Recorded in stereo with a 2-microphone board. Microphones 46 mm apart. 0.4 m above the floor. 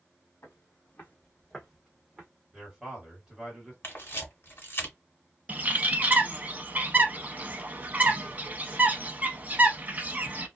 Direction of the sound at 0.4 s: 65° left (ahead or behind).